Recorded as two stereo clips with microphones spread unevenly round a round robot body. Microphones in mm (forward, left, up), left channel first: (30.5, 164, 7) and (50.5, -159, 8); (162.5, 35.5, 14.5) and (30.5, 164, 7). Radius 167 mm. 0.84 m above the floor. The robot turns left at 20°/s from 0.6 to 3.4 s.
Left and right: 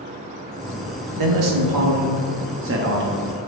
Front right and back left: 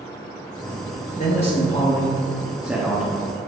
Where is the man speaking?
105° right, 1.2 m; by 3.5 s 150° right, 1.2 m.